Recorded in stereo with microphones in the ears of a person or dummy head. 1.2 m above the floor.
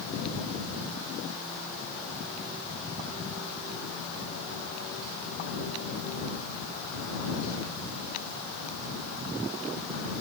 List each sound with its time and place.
Only background noise.